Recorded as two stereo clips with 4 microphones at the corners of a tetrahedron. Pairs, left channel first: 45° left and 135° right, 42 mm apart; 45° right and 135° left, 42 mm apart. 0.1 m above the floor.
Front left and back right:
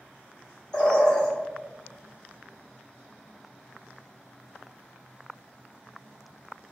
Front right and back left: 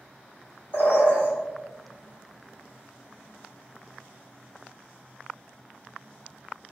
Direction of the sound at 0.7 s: 25° right.